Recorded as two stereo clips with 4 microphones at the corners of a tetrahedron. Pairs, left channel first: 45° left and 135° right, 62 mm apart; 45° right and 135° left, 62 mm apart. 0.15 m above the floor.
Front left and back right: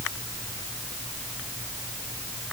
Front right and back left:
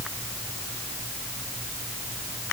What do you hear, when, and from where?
Only background noise.